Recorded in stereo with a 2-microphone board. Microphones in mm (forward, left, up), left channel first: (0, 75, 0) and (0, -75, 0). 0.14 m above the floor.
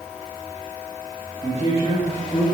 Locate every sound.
1.4 s a man speaking: 45° left (ahead or behind), 4.5 m; by 2.5 s 40° left (ahead or behind), 4 m